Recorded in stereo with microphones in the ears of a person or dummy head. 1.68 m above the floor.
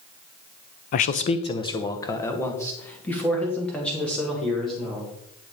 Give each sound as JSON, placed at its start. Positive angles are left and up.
{"t": 0.9, "sound": "a man speaking", "side_deg": 45, "distance_m": 0.8}